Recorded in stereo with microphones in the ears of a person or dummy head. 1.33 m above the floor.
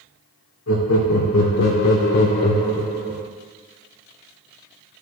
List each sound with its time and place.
0.7 s laughter: 80° left, 1.3 m; by 3.3 s 10° right (ahead or behind), 0.8 m